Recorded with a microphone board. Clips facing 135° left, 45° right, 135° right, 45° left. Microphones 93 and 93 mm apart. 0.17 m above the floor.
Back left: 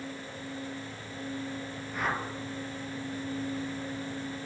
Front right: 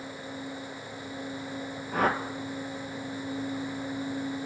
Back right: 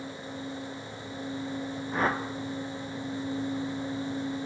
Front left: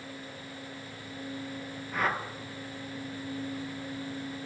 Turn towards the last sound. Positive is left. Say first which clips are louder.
# front right 6 dB, back right 2 dB
turn(degrees=-75)